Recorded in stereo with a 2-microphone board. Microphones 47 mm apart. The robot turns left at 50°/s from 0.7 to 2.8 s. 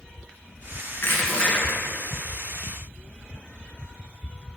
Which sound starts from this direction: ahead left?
Crushing, at 0.9 s.